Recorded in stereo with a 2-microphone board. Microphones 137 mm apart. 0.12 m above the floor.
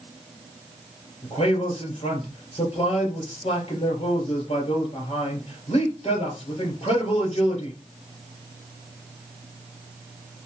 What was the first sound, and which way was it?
A man speaking, 45° left (ahead or behind).